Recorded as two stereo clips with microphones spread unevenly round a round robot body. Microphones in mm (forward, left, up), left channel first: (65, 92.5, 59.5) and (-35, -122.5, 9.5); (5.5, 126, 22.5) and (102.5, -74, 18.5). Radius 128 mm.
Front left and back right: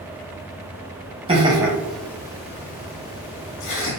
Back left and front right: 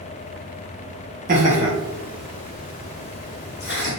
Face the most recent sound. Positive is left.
turn(degrees=90)